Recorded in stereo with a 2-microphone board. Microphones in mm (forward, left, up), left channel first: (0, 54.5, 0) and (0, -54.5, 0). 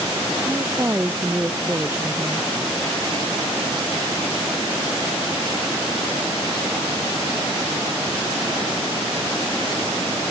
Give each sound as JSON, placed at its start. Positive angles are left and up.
{"t": 0.5, "sound": "a woman speaking", "side_deg": -25}